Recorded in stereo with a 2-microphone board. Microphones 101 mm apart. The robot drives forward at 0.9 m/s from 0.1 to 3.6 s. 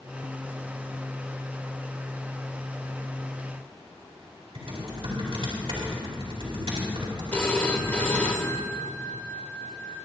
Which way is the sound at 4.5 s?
70° right (ahead or behind).